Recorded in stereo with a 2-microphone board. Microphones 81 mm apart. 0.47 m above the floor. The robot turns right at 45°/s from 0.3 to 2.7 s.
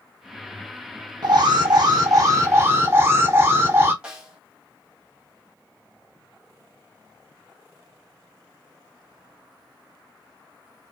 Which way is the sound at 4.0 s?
10° right (ahead or behind).